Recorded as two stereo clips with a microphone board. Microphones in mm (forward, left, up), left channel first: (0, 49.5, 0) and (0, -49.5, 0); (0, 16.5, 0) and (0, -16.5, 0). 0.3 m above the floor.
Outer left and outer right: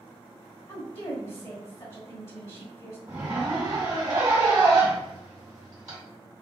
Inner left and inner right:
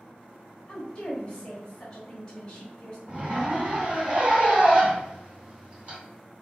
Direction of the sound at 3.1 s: 30° right (ahead or behind).